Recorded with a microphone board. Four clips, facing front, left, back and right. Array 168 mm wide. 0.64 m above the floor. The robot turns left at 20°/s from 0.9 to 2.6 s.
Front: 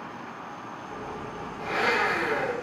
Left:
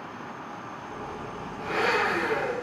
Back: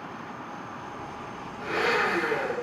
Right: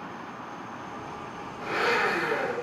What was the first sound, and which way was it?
A blender, 170° right.